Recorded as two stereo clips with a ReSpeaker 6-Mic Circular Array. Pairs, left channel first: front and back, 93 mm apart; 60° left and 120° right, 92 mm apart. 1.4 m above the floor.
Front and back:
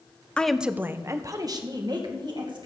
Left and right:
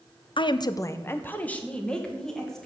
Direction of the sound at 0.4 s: 75° left.